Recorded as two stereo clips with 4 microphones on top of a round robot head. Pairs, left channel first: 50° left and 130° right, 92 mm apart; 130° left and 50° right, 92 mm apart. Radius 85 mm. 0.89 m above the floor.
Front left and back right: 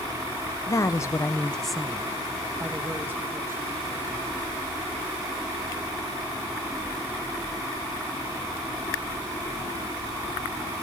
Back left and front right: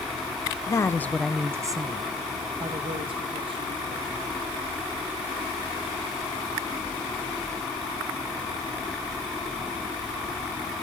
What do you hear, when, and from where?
0.7 s a woman speaking: 90° left, 0.7 m; by 4.3 s 65° right, 2 m